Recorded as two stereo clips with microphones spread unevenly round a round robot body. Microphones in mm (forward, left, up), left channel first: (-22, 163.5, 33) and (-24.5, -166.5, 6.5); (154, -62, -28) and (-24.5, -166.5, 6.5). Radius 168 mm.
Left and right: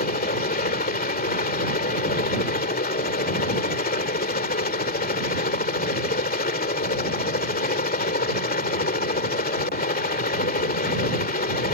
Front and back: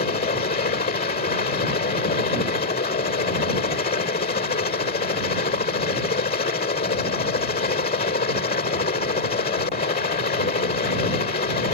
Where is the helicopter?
40° left.